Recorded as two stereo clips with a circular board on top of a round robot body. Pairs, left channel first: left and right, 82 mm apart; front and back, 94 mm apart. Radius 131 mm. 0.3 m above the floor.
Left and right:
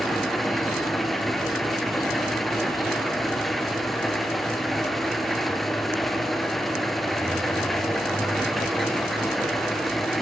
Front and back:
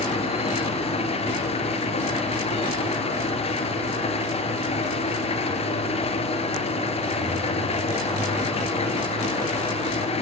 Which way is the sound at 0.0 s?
Straight ahead.